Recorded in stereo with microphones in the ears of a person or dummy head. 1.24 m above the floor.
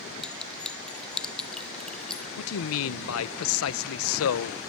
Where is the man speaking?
80° left, 0.8 m.